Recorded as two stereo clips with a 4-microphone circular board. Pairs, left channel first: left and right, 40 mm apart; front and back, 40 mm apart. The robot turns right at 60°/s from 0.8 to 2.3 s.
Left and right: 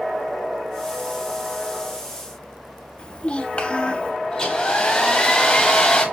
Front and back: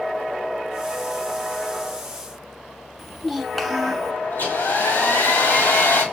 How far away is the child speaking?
About 0.5 m.